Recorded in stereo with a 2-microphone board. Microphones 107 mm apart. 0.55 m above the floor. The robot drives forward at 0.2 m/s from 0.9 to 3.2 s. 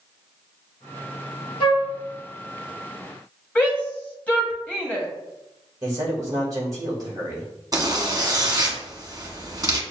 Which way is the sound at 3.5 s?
10° left (ahead or behind).